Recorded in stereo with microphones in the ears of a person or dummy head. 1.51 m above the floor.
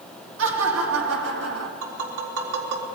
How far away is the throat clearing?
No throat clearing in this recording.